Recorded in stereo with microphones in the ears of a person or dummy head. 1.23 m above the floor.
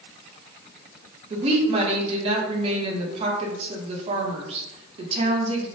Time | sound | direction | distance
1.3 | a woman speaking | 35° right (ahead or behind) | 0.6 m